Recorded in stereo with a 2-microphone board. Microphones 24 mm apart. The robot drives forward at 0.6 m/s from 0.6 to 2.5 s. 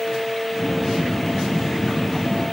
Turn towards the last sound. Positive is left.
No sound to turn to.